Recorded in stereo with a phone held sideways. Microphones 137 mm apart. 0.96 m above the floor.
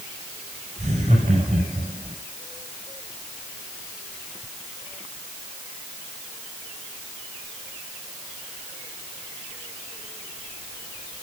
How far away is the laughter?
About 5.5 m.